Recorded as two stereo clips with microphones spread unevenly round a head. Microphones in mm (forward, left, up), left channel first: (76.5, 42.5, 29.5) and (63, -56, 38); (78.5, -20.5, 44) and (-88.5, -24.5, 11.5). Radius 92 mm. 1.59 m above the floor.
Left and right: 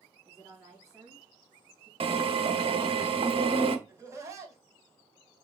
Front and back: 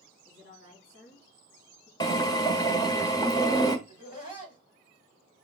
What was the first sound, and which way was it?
A woman speaking, 10° right.